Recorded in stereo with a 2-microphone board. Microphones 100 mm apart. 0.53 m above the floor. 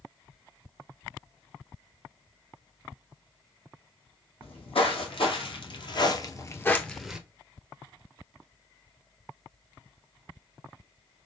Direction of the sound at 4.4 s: 75° left (ahead or behind).